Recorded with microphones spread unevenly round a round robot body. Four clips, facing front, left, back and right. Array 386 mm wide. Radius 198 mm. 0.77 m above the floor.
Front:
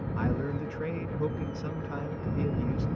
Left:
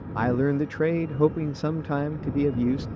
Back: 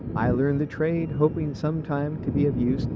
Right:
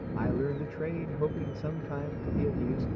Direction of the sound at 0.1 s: 115° left.